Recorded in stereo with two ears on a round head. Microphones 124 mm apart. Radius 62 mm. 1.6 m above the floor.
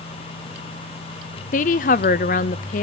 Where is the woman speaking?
60° left (ahead or behind), 0.6 m.